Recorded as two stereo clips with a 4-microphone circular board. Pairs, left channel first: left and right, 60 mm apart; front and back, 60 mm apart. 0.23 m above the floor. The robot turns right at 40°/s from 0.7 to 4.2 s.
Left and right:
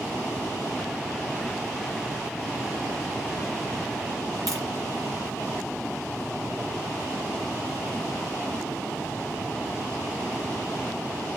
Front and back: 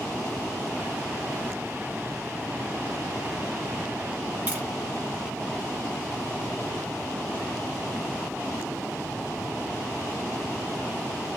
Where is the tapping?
115° right, 4 m.